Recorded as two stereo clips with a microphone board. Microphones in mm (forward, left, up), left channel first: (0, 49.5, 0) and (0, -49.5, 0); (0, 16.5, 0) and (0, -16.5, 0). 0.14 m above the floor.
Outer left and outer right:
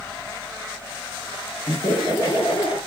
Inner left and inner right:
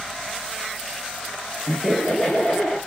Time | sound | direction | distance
1.7 | laughter | 45° left (ahead or behind) | 1.7 m